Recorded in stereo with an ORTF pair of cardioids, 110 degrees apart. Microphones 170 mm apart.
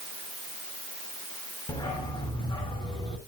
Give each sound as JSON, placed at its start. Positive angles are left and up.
{"t": 1.7, "sound": "a dog barking", "azimuth_deg": 25, "distance_m": 7.0}